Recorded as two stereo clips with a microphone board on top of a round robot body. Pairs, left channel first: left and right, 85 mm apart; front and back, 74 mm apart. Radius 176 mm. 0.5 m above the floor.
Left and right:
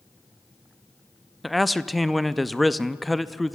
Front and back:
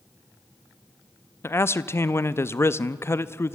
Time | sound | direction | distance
1.4 | a man speaking | straight ahead | 0.7 m